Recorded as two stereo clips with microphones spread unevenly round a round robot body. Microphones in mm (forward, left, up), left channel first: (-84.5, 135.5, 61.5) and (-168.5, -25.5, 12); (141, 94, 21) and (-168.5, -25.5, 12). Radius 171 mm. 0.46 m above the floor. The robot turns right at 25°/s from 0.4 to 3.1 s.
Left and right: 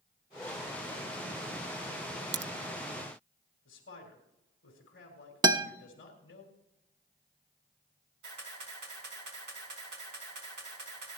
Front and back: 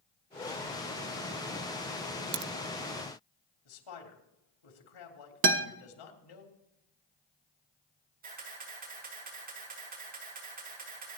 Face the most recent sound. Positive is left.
turn(degrees=-95)